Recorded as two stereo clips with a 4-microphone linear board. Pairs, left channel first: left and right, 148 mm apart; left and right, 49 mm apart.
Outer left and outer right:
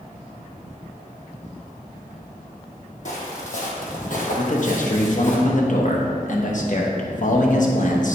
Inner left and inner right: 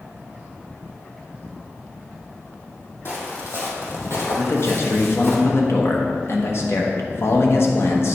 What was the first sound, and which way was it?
Footsteps, 60° left (ahead or behind).